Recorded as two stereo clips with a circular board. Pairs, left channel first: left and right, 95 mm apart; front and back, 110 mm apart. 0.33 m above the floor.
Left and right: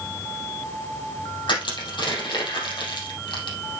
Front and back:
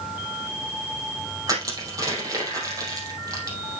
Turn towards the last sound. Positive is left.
turn(degrees=125)